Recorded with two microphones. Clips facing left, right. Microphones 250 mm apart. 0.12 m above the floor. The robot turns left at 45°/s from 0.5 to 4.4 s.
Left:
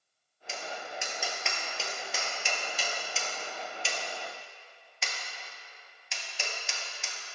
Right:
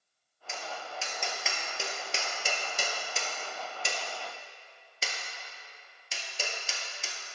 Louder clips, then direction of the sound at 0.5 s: Left 1 dB; 35° left (ahead or behind).